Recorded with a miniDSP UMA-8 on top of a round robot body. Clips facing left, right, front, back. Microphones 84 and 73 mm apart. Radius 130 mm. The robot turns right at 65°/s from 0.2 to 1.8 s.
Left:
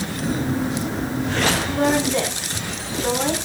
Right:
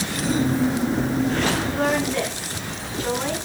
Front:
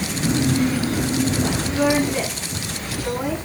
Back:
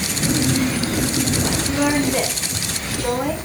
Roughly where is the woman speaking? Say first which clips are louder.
Left 3 dB, back 1 dB; behind left.